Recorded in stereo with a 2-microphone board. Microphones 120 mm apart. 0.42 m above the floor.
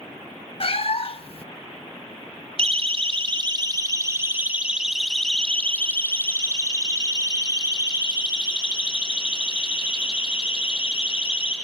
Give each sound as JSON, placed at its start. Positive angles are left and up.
{"t": 0.6, "sound": "a cat meowing", "side_deg": 50, "distance_m": 0.6}
{"t": 2.6, "sound": "a siren", "side_deg": -60, "distance_m": 2.5}